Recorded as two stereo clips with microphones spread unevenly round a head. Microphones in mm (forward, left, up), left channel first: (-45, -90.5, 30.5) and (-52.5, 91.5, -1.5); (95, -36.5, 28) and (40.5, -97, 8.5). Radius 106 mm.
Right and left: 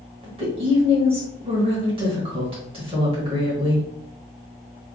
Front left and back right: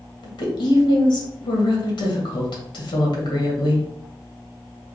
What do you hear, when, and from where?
0.2 s a woman speaking: 30° left, 1.4 m